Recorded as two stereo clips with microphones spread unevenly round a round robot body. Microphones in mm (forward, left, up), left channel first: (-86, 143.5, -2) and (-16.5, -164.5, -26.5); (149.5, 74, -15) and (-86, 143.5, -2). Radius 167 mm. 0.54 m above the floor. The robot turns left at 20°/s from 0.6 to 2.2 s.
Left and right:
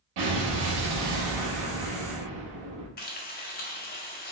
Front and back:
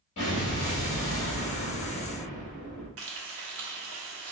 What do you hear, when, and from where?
0.2 s an explosion: 70° right, 1.8 m; by 2.9 s 100° right, 1.8 m
3.0 s frying: 160° left, 0.8 m